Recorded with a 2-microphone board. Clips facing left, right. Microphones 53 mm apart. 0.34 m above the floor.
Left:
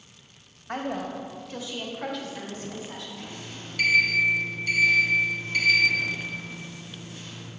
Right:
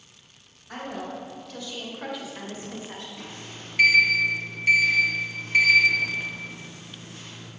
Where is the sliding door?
40° right (ahead or behind), 1.4 m.